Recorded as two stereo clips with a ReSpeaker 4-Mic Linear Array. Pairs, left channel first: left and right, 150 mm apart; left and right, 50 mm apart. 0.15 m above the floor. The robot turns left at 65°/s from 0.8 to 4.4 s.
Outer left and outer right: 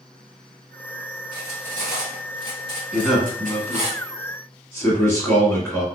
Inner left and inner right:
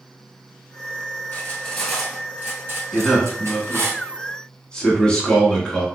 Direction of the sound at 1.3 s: 35° left (ahead or behind).